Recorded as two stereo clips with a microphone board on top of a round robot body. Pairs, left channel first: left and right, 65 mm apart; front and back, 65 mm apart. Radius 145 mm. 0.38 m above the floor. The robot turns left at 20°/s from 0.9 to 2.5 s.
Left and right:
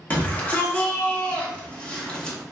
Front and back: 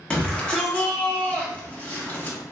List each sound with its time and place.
0.1 s a shout: 55° left, 1.2 m; by 2.4 s 25° left, 1.2 m